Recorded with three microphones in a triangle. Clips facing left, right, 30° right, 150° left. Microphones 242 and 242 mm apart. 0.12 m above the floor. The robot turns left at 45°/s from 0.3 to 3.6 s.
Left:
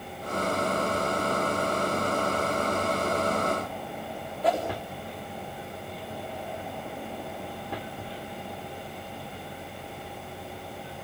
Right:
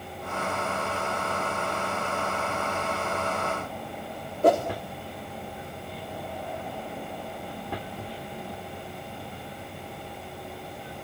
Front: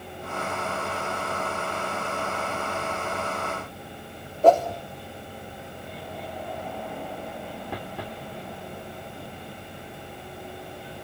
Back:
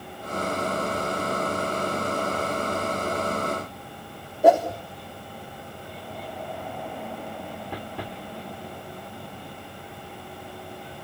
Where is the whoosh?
130° right, 4.5 m.